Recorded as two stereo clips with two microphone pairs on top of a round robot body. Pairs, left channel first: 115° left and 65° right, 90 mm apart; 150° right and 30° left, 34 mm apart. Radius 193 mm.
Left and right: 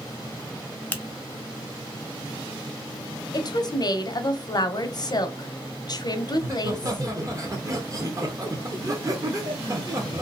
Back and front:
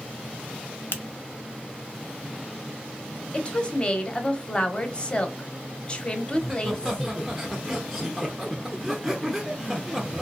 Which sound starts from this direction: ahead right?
Laughter, at 6.3 s.